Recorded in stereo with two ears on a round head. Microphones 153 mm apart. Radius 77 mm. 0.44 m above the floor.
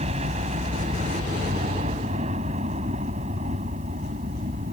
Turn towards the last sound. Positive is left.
turn(degrees=-40)  # may be behind; listen again after turning